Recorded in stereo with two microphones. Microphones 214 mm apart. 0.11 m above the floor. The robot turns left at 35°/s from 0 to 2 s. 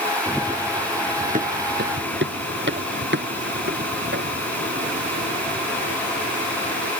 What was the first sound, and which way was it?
Running footsteps, centre (ahead or behind).